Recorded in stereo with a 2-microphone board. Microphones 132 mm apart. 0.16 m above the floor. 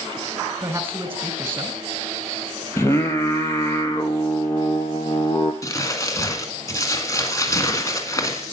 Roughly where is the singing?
Centre.